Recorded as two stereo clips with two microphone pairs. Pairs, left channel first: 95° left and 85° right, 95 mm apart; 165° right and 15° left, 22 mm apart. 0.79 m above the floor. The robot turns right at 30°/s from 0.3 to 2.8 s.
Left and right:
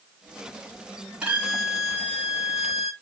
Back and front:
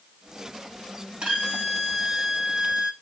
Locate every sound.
1.2 s a violin: 10° right, 2 m; by 2.9 s 40° left, 2 m